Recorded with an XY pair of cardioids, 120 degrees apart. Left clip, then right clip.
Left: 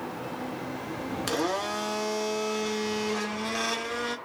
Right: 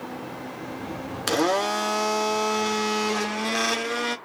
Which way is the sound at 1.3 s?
35° right.